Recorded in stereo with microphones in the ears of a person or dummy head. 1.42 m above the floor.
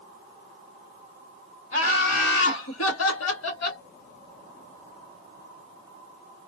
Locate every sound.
1.7 s laughter: 50° left (ahead or behind), 1.2 m; by 3.8 s 70° left (ahead or behind), 1.2 m